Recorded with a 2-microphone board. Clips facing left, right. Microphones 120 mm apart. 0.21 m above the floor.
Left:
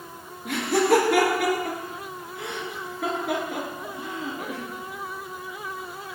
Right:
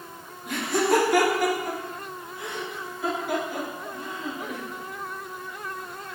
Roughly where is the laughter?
Left.